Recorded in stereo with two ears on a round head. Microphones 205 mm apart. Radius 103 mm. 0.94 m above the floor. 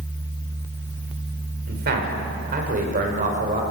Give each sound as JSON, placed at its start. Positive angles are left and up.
{"t": 1.7, "sound": "a man speaking", "side_deg": -45, "distance_m": 4.0}